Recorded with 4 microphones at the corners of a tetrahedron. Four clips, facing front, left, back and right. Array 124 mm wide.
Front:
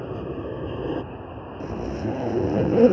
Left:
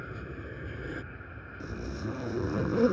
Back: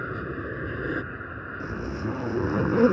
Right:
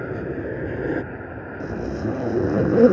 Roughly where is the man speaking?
I don't hear a man speaking.